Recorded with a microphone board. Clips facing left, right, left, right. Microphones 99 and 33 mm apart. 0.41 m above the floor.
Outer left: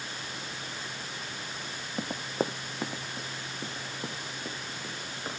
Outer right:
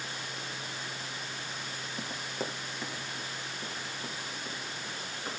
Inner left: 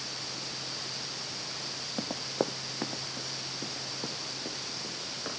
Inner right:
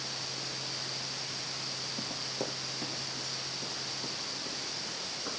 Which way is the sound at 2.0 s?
45° left (ahead or behind).